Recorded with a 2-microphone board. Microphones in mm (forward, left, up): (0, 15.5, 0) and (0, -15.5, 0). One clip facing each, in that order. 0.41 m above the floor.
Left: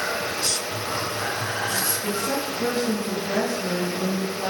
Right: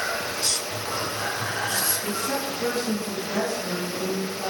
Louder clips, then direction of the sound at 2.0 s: Left 2 dB; 20° left (ahead or behind).